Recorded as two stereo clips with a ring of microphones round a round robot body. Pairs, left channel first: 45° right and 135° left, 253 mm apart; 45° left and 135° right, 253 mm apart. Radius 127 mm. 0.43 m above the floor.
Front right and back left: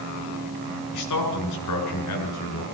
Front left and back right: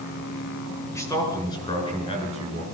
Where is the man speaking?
35° right, 7 m; by 2.6 s 20° right, 6.5 m.